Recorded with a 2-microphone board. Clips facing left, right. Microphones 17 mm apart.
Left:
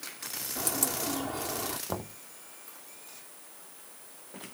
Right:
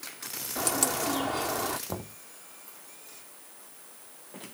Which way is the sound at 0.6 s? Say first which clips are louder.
Right 5 dB; 35° right (ahead or behind).